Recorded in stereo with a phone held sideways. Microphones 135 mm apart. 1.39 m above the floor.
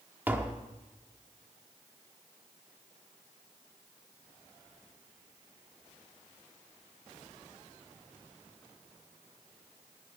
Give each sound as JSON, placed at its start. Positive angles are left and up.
{"t": 0.3, "sound": "tapping", "side_deg": -15, "distance_m": 1.3}